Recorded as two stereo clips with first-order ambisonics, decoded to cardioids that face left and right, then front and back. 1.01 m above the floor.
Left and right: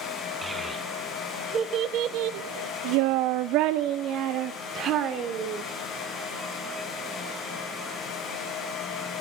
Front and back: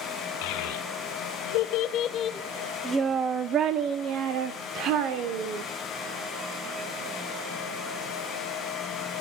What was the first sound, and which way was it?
A child speaking, 5° right.